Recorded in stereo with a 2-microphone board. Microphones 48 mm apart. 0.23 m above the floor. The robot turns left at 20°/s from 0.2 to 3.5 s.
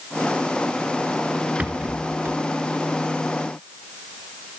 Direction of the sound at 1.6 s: 30° right (ahead or behind).